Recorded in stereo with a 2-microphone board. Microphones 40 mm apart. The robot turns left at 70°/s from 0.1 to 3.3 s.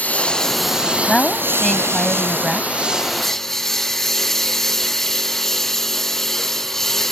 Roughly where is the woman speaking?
Ahead left.